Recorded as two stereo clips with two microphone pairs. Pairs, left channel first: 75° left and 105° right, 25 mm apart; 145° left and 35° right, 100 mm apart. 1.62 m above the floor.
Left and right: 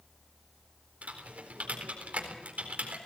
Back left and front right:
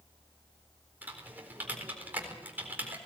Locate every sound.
1.0 s typing on a keyboard: 110° right, 4 m